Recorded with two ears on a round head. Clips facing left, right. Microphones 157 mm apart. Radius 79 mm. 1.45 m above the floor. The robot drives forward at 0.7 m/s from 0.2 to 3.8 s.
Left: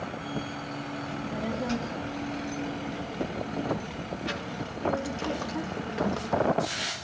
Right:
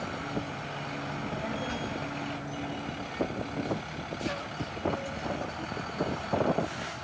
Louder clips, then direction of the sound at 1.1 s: Left 3 dB; 45° left (ahead or behind).